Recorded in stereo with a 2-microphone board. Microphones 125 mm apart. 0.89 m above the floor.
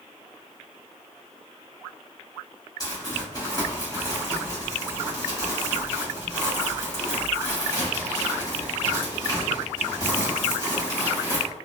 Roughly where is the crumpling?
Left.